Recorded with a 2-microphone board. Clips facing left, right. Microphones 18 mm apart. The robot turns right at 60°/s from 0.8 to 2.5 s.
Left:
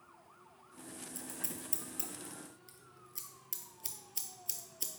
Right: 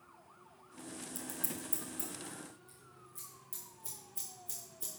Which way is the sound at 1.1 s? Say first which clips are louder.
Right 2 dB; 5° left (ahead or behind).